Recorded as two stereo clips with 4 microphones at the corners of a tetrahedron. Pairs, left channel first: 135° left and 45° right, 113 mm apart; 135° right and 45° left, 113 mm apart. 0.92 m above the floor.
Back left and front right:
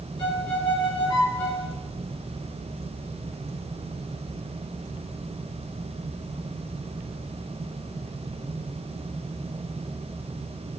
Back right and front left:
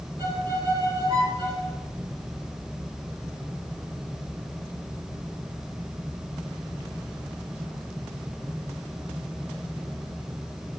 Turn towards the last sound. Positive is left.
turn(degrees=90)